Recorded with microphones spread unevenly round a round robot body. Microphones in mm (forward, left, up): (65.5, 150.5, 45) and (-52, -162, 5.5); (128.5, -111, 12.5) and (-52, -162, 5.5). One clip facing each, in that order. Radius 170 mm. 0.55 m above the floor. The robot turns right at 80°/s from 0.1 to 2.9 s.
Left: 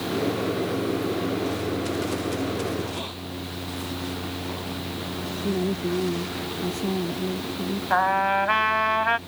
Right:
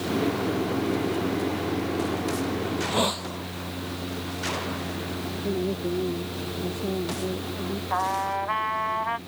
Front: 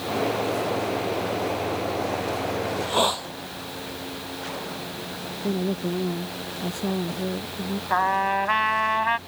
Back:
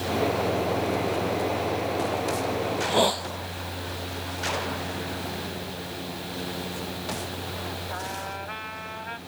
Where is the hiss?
110° right; by 3.3 s 90° right.